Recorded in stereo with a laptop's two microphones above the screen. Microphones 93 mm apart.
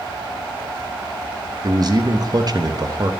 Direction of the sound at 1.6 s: 45° right (ahead or behind).